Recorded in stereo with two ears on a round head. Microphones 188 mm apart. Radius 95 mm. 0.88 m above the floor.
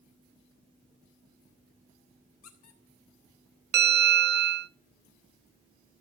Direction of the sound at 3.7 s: 50° right (ahead or behind).